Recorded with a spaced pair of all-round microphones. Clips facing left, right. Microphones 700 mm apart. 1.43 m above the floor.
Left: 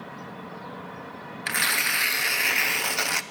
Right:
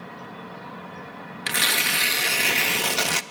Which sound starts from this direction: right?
Tearing paper, at 1.5 s.